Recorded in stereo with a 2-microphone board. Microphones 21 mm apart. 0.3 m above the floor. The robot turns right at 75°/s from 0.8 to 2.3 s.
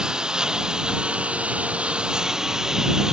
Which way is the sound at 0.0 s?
145° right.